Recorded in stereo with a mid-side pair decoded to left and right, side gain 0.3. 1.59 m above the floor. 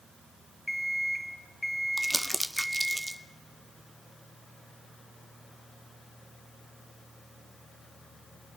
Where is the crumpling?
10° right, 0.8 m.